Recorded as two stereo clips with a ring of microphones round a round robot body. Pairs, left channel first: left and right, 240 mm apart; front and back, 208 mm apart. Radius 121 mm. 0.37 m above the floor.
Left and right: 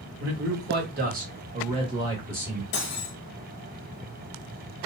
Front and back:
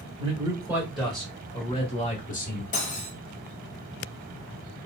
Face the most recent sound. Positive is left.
turn(degrees=50)